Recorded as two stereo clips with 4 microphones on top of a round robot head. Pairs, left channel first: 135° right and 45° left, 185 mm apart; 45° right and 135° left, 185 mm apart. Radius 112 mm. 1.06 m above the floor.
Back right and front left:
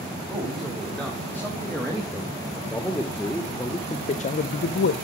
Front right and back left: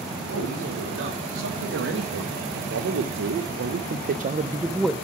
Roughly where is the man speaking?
Behind left.